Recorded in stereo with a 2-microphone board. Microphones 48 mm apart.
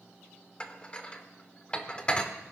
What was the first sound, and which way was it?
Dishes clattering, 20° left (ahead or behind).